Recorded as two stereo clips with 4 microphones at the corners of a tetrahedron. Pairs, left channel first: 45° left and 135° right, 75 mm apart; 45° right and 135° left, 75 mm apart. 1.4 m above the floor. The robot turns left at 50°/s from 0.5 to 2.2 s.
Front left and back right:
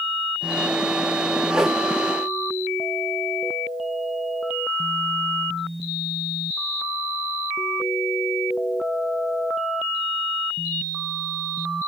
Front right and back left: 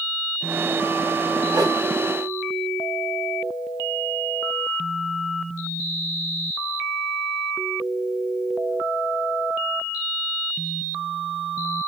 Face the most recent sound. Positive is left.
turn(degrees=115)